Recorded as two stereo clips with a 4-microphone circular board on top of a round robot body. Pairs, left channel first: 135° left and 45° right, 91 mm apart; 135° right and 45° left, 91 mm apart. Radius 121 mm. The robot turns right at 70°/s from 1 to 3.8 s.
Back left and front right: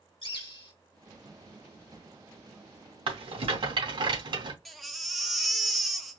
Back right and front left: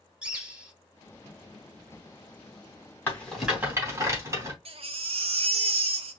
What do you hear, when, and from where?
0.2 s a bird: 120° left, 2 m
3.1 s a rattle: 70° right, 3 m; by 4.5 s 15° right, 3 m
4.7 s a baby crying: 45° left, 1.0 m